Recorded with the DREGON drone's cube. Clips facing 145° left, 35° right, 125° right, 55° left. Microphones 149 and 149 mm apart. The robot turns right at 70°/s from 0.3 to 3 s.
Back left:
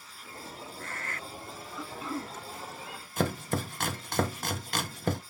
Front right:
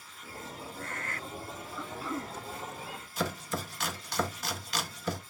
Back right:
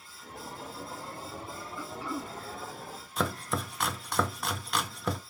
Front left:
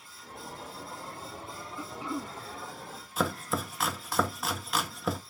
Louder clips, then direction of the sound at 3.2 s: Back left 4 dB, front left 1 dB; 145° left.